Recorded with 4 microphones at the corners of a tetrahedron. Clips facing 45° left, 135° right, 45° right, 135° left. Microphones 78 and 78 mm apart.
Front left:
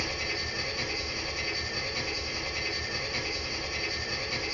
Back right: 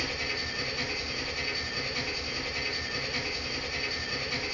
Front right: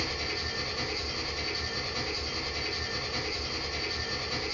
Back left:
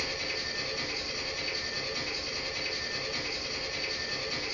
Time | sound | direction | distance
0.0 | an engine running | 35° right | 1.3 m